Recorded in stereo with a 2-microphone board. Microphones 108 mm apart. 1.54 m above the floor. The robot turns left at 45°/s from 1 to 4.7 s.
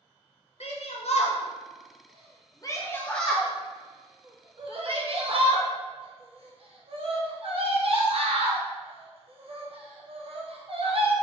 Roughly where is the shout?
Left.